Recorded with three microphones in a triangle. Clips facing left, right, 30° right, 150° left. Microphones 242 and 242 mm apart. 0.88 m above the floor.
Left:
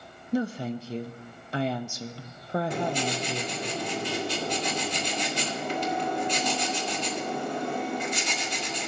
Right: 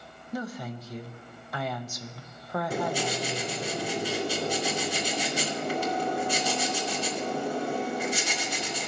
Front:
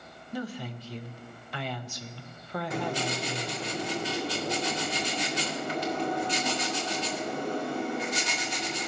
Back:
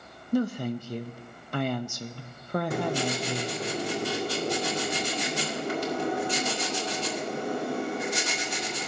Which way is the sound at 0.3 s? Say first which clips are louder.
Left 7 dB, back 10 dB; 140° left.